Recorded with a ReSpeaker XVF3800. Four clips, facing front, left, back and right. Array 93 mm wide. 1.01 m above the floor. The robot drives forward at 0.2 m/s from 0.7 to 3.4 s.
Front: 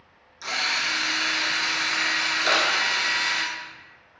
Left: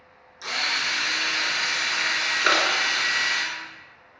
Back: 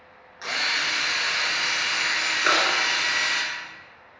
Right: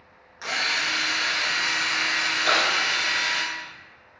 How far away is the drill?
About 0.9 m.